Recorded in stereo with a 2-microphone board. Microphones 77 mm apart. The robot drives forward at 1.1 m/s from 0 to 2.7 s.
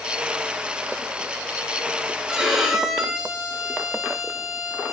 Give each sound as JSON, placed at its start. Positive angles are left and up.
{"t": 2.3, "sound": "a violin", "side_deg": -5, "distance_m": 2.5}